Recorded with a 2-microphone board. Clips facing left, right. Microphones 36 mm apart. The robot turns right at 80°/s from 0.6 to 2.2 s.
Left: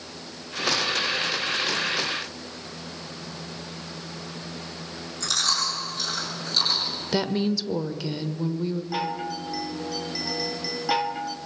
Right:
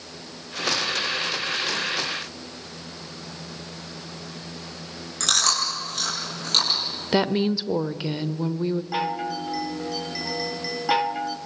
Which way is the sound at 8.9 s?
10° right (ahead or behind).